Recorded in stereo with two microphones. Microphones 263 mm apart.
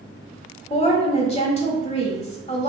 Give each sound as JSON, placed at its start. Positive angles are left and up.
{"t": 0.7, "sound": "a woman speaking", "side_deg": 25, "distance_m": 1.2}